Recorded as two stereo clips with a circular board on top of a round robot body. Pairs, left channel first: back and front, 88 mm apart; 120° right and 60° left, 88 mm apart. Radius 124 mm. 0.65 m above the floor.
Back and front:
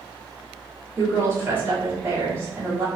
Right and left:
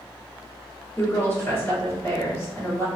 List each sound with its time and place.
1.0 s a woman speaking: 60° right, 1.9 m